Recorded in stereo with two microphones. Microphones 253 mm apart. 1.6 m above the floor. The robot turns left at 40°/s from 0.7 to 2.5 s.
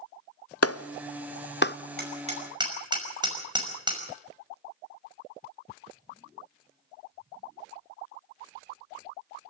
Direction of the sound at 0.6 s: 70° left (ahead or behind).